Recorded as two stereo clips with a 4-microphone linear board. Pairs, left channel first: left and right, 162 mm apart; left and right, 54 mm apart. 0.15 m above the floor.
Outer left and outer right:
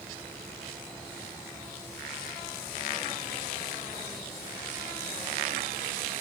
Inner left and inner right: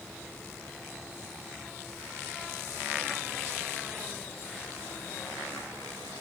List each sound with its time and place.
Only background noise.